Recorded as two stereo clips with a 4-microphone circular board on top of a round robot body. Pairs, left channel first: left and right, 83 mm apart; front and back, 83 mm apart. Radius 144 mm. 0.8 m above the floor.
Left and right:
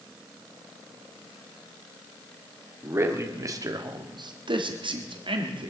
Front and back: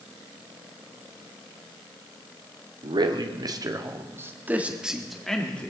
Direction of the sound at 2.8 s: 150° right.